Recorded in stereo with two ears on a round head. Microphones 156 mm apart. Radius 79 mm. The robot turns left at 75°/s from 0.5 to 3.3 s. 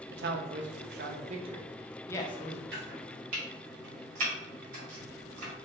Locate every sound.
0.1 s a man speaking: 65° right (ahead or behind), 0.8 m; by 2.6 s 50° left (ahead or behind), 0.8 m
2.7 s chopping: 65° right (ahead or behind), 1.8 m; by 5.5 s 50° right (ahead or behind), 1.8 m